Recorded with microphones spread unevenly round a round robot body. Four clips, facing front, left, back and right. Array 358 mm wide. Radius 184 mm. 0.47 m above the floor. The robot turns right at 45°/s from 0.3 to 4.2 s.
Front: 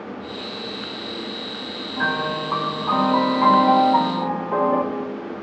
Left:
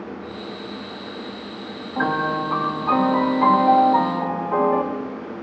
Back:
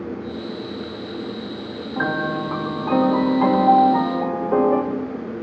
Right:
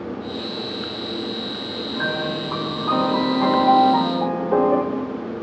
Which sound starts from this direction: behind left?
A piano, at 2.0 s.